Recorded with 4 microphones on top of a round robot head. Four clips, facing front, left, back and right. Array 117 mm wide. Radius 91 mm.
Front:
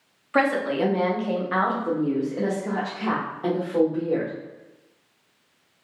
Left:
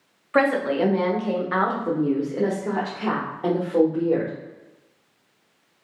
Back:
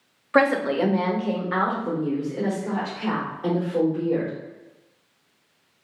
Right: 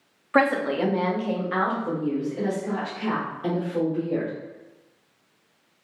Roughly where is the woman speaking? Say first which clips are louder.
Left 1 dB, back 2 dB; behind right.